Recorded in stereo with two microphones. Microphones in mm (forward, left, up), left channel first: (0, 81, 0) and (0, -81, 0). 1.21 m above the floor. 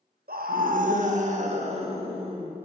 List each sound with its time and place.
0.3 s a scream: 70° right (ahead or behind), 1.0 m; by 2.5 s 35° right (ahead or behind), 2 m